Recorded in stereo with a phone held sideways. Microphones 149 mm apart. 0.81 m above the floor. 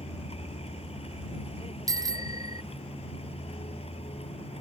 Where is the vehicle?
45° left (ahead or behind).